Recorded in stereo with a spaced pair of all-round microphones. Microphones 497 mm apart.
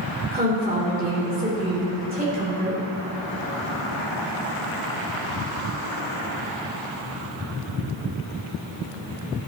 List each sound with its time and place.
0.3 s a woman speaking: 15° right (ahead or behind), 3.5 m